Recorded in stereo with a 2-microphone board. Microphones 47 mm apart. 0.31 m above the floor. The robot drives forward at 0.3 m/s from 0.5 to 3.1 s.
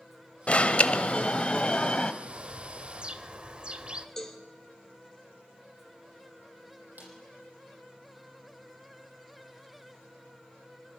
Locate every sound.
0.5 s an alarm: 30° left (ahead or behind), 1.0 m; by 2.1 s 25° left (ahead or behind), 1.3 m
2.2 s a bird: 25° right (ahead or behind), 1.0 m
4.2 s a cowbell: 10° left (ahead or behind), 4 m
7.0 s a snare drum: 40° right (ahead or behind), 8 m